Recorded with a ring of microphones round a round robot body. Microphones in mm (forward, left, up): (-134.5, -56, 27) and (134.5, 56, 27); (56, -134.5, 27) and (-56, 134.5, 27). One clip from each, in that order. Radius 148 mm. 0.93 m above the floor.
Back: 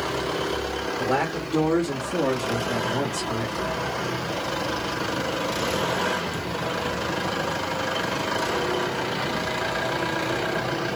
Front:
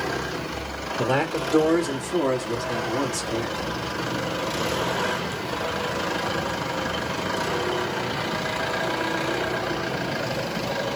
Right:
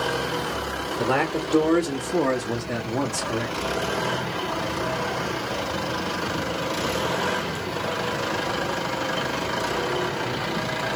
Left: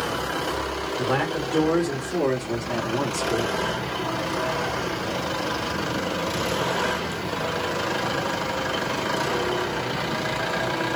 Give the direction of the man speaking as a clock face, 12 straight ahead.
12 o'clock.